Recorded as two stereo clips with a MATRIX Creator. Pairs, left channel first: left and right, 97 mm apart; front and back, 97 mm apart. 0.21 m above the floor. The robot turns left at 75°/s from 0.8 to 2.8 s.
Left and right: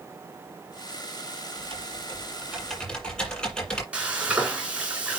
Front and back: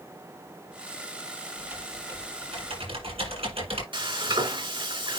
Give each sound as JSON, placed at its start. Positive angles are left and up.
{"t": 1.6, "sound": "typing on a keyboard", "azimuth_deg": -95, "distance_m": 6.5}
{"t": 3.9, "sound": "frying", "azimuth_deg": -165, "distance_m": 3.0}